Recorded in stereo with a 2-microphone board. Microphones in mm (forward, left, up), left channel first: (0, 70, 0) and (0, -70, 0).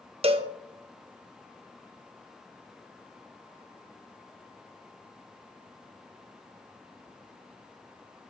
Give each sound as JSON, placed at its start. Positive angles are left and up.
{"t": 0.2, "sound": "a cowbell", "side_deg": -45, "distance_m": 0.5}